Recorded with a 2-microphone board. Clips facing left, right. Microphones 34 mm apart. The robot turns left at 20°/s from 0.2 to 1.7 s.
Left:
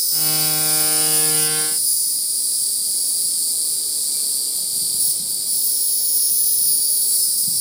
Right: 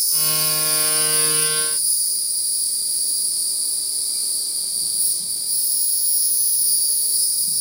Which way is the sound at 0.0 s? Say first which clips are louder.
Left 1 dB; 120° left.